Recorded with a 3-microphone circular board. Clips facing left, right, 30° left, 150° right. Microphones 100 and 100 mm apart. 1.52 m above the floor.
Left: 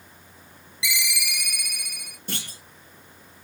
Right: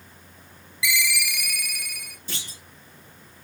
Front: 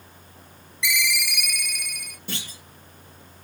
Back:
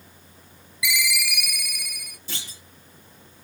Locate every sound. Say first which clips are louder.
0.8 s a ringtone: right 4 dB, even; 130° left, 1.0 m
2.3 s a clunk: left 4 dB, front 4 dB; 60° left, 3 m